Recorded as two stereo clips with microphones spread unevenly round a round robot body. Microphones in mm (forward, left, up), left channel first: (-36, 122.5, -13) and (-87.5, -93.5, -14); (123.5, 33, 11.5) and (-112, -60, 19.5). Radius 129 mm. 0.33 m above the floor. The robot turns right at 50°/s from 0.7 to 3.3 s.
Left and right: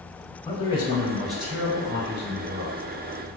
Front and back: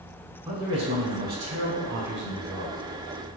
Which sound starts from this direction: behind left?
A man speaking, at 0.5 s.